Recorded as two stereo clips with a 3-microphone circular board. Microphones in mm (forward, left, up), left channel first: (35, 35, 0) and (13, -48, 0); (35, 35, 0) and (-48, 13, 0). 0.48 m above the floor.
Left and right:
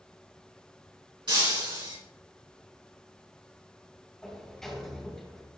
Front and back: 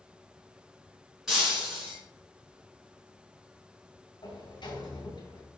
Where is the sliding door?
10° right, 1.8 m.